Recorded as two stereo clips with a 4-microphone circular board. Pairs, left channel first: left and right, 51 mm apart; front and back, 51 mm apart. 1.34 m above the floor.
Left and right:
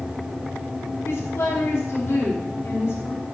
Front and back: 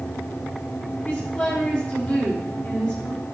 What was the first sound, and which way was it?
A woman speaking, 55° left.